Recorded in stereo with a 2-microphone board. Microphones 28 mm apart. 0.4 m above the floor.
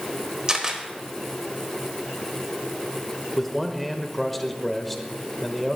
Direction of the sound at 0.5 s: 25° right (ahead or behind).